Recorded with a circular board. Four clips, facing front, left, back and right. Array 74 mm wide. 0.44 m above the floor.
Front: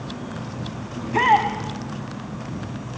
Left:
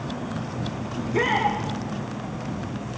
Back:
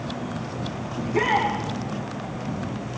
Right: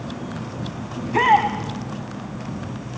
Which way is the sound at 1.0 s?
55° right.